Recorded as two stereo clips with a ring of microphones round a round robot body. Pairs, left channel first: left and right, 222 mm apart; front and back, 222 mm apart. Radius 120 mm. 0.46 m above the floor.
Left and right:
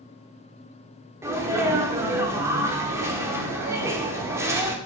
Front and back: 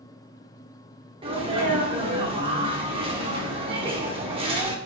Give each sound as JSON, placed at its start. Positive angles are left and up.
{"t": 1.2, "sound": "a sneeze", "azimuth_deg": -150, "distance_m": 0.7}